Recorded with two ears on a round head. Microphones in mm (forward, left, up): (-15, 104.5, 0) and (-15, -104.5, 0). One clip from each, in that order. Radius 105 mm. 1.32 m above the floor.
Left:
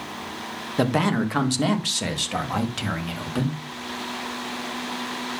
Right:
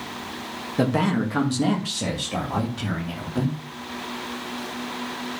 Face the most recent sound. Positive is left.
turn(degrees=80)